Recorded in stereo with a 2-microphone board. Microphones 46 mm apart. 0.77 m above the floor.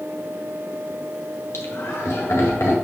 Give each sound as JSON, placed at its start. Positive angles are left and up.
{"t": 1.5, "sound": "laughter", "side_deg": 75, "distance_m": 2.5}